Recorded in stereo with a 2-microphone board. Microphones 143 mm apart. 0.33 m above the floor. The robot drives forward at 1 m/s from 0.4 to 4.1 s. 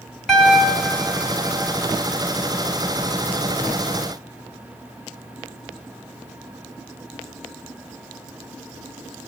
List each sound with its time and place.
0.3 s a piano: centre (ahead or behind), 0.9 m